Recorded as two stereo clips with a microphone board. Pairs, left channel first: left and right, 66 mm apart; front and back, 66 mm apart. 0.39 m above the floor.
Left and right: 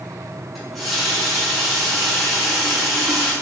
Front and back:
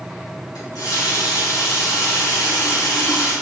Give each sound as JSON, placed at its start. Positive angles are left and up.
{"t": 0.6, "sound": "a running tap", "azimuth_deg": 0, "distance_m": 3.5}